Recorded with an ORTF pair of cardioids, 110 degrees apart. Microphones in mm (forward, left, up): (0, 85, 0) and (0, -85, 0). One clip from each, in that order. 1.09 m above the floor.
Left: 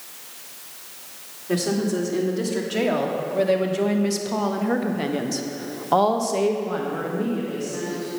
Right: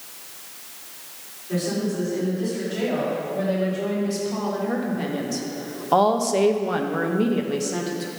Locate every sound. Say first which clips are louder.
1.5 s a woman speaking: left 3 dB; 60° left, 3.5 m; by 8.1 s 65° right, 1.7 m